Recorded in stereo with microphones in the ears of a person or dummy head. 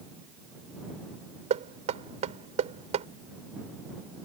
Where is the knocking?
40° right (ahead or behind).